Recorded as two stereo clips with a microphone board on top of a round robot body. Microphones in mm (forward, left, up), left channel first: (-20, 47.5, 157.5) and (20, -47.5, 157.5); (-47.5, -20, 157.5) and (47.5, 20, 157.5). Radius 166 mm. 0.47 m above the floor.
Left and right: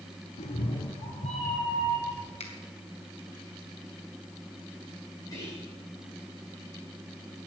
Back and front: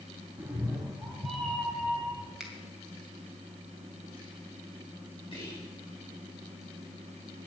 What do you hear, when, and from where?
0.4 s a cat meowing: 95° left, 0.9 m; by 2.3 s 120° left, 3.5 m
2.4 s a finger snap: 105° left, 2.5 m
5.3 s whispering: 170° left, 6.5 m